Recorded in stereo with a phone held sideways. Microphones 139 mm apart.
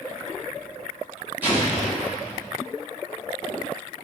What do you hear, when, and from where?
1.4 s an explosion: 15° right (ahead or behind), 1.3 m